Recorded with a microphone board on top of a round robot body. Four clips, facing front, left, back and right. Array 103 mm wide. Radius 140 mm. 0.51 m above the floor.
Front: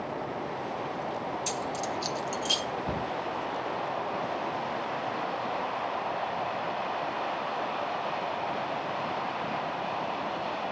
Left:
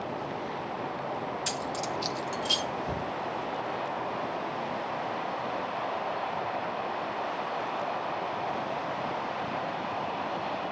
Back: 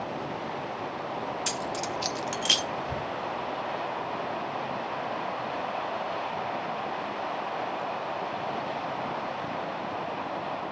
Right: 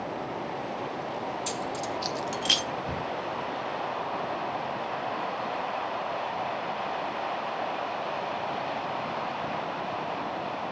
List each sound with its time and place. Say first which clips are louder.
1.5 s keys jangling: right 1 dB, even; 150° left, 1.8 m; by 2.6 s 130° right, 1.1 m
2.9 s a cupboard door: even, front 1 dB; straight ahead, 3.5 m